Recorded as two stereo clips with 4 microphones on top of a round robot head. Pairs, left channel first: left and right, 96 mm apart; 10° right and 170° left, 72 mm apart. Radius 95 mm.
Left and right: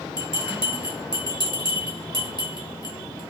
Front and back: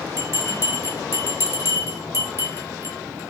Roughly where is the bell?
Behind left.